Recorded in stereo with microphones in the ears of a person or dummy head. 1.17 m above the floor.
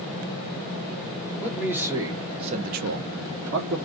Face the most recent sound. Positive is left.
turn(degrees=-45)  # may be behind; listen again after turning